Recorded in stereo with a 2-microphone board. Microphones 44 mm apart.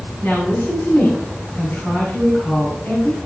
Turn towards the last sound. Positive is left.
turn(degrees=50)  # may be behind; listen again after turning